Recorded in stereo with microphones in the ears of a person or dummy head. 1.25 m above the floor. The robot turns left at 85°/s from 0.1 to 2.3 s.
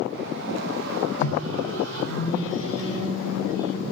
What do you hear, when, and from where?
1.2 s a microwave: 40° left (ahead or behind), 1.5 m; by 3.8 s 45° left (ahead or behind), 1.5 m